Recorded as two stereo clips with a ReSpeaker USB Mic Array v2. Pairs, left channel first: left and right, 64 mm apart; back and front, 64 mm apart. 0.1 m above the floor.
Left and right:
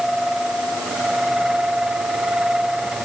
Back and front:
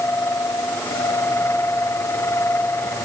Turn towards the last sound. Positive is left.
No sound to turn to.